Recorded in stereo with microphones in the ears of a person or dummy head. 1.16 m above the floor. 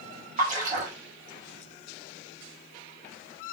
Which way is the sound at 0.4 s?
45° right (ahead or behind).